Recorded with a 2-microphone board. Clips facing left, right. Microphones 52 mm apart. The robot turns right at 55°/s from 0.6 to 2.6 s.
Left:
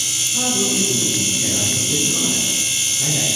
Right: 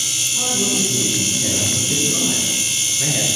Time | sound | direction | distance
0.3 | a man speaking | 135° left | 3 m